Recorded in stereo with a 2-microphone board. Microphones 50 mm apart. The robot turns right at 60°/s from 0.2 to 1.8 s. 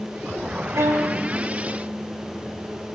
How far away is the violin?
About 5.5 m.